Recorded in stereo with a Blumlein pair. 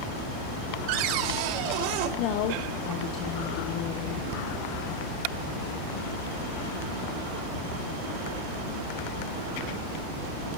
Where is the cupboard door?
45° right, 2.5 m.